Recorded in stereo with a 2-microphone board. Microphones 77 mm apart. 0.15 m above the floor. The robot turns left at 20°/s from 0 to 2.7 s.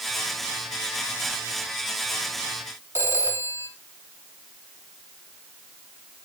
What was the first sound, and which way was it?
A phone ringing, 35° right (ahead or behind).